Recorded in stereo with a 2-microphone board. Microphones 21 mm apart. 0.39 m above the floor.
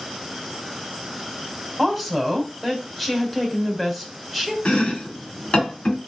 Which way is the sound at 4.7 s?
70° left (ahead or behind).